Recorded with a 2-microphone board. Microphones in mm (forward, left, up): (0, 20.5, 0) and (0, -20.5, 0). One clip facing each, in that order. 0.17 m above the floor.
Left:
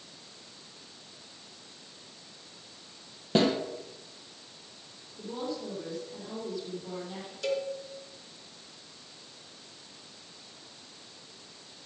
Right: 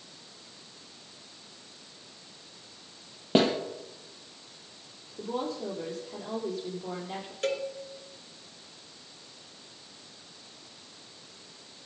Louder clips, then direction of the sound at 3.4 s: Right 1 dB; 30° right (ahead or behind).